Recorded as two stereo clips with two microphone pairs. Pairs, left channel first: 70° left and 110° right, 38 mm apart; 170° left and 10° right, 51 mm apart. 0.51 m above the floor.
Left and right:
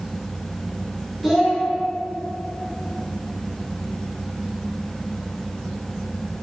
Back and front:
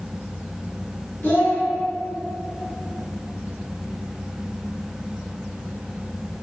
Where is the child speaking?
160° left, 0.9 m.